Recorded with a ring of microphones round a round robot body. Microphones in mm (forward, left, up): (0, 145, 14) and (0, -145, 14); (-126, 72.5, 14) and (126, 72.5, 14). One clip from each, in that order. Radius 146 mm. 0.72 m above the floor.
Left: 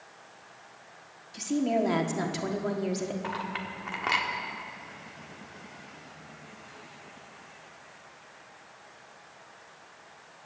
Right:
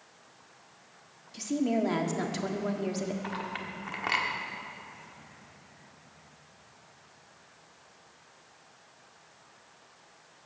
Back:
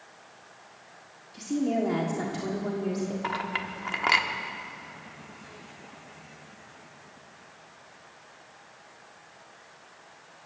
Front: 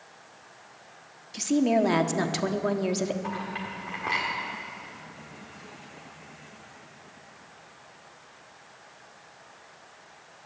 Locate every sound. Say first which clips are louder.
1.3 s a woman speaking: left 2 dB, front 5 dB; straight ahead, 1.4 m
3.2 s a clink: left 2 dB, back 3 dB; 175° left, 1.3 m